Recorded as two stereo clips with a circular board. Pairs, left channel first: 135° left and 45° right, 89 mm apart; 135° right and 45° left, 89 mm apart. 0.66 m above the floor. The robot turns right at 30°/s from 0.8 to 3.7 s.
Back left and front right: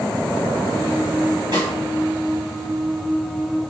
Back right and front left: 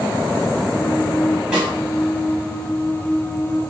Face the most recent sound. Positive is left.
turn(degrees=30)